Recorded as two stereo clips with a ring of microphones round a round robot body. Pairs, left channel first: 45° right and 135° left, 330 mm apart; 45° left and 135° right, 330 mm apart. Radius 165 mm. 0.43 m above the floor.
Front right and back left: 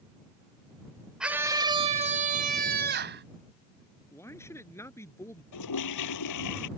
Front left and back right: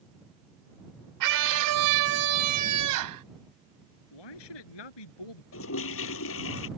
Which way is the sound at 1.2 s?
140° right.